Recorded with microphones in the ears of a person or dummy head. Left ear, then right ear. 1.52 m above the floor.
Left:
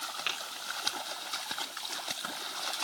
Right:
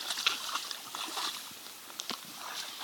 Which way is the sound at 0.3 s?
20° left (ahead or behind).